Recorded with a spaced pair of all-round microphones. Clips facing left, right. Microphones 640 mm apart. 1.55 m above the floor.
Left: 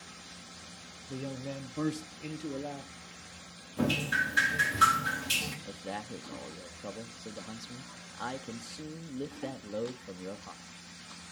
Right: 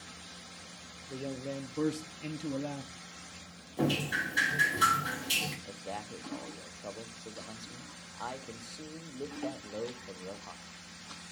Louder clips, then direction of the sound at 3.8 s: Even; 35° left (ahead or behind).